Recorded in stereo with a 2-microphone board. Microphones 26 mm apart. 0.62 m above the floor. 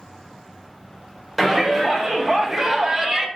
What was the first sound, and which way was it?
A shout, 5° right (ahead or behind).